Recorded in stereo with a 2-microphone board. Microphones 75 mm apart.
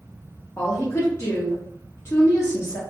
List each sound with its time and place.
0.6 s a woman speaking: 35° left (ahead or behind), 0.7 m